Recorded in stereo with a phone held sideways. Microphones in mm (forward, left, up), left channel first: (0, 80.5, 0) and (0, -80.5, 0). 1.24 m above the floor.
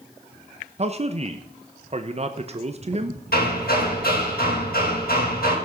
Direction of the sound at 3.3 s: 75° left (ahead or behind).